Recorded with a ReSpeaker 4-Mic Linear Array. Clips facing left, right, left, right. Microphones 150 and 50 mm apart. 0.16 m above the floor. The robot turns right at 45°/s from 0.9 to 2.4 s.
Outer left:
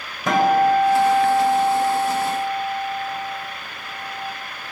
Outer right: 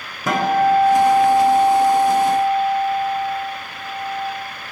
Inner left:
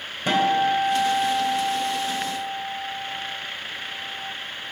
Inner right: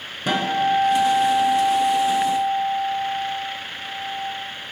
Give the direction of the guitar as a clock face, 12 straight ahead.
6 o'clock.